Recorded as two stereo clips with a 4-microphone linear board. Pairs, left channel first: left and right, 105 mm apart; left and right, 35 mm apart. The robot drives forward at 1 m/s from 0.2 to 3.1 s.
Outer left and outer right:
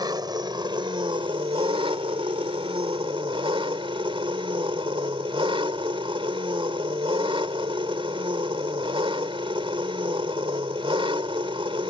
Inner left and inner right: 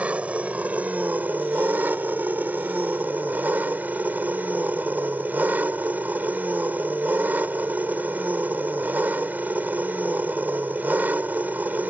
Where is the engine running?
45° right (ahead or behind); by 11.9 s 65° right (ahead or behind).